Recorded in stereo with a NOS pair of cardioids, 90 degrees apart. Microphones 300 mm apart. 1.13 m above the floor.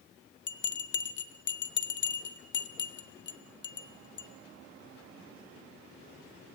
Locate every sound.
0.5 s a bell: 40° left, 0.5 m